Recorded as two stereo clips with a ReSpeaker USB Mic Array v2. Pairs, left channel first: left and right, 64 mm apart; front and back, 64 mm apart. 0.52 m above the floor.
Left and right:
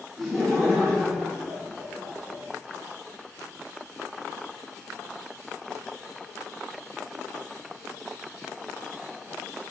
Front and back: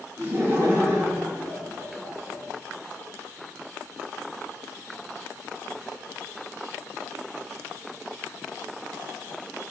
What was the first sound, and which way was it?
Laughter, 170° right.